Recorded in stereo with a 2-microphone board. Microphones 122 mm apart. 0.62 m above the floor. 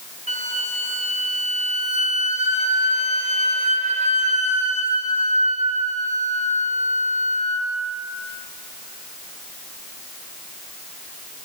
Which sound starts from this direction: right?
A flute, at 0.3 s.